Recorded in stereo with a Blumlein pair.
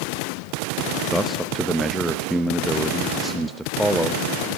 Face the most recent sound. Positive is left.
turn(degrees=0)